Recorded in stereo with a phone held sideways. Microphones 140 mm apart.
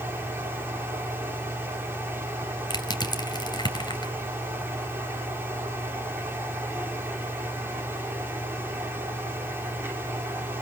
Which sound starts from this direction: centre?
A fan, at 0.0 s.